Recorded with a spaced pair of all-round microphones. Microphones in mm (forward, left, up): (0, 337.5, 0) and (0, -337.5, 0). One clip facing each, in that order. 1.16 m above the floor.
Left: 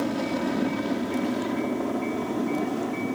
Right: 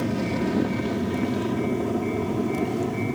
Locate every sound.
0.0 s an aircraft: 55° right (ahead or behind)